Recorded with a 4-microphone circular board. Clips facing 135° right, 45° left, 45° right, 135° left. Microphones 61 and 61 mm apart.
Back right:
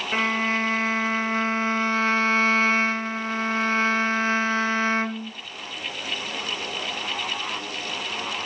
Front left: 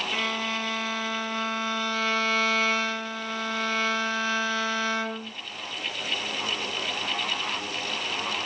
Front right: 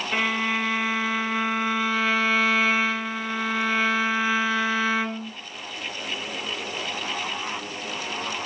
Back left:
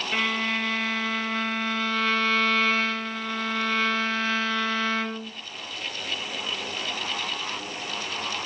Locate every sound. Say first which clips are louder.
0.1 s a violin: back right 9 dB, front right 2 dB; 115° right, 1.8 m